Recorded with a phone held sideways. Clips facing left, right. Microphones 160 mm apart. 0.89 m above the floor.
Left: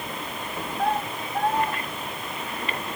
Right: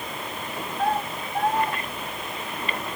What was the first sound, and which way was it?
Only background noise.